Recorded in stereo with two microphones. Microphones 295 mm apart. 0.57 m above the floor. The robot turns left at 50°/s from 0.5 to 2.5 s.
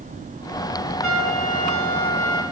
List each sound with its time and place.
1.0 s a trumpet: 70° left, 4 m; by 2.4 s straight ahead, 4 m